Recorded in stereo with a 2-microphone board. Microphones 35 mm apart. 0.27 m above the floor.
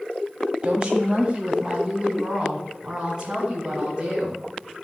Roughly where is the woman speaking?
Right.